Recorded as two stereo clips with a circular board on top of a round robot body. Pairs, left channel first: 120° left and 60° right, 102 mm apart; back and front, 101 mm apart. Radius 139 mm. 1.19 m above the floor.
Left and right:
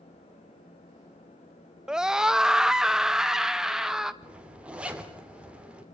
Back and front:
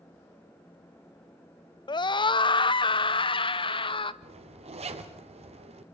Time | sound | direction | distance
1.9 | a scream | 140° right | 0.6 m
4.2 | a zipper | 20° left | 2.5 m